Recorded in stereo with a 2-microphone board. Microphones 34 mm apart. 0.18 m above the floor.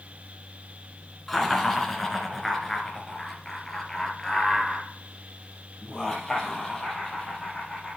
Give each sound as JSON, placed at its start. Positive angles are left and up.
{"t": 1.3, "sound": "laughter", "side_deg": 5, "distance_m": 2.0}